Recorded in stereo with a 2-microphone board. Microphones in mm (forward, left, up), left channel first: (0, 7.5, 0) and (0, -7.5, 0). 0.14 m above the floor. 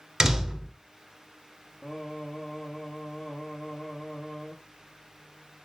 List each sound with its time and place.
0.2 s a door slam: 45° right (ahead or behind), 1.4 m
1.8 s singing: 30° left (ahead or behind), 1.8 m